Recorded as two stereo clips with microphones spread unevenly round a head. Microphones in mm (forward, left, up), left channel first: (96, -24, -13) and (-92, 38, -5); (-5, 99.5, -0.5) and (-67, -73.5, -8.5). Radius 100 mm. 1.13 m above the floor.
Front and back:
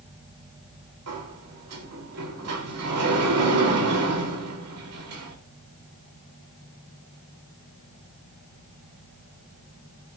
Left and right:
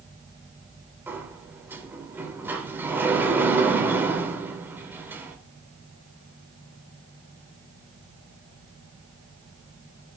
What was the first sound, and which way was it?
A sliding door, 170° left.